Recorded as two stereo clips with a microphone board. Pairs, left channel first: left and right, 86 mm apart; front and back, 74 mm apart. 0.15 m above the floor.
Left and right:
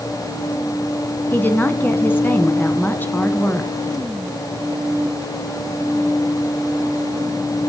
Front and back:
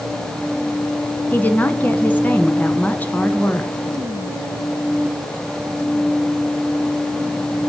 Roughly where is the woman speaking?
Ahead left.